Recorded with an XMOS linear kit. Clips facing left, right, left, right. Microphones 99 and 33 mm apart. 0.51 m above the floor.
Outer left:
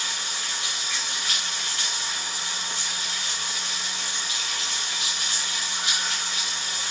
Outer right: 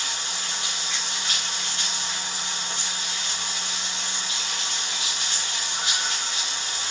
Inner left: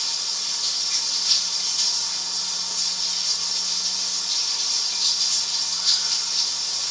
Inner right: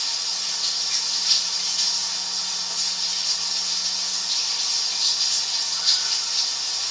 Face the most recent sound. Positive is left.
turn(degrees=-25)  # may be behind; listen again after turning